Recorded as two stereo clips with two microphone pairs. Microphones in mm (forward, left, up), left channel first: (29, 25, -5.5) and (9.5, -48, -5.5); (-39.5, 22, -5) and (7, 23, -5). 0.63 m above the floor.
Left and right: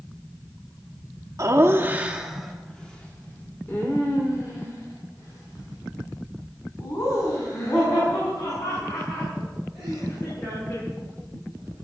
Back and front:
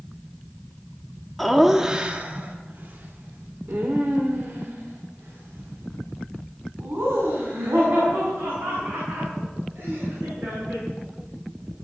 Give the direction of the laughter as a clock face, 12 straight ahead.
3 o'clock.